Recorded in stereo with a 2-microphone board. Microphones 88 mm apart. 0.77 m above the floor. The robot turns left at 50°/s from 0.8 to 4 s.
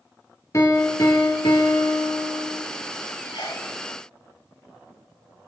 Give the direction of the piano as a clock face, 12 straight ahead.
7 o'clock.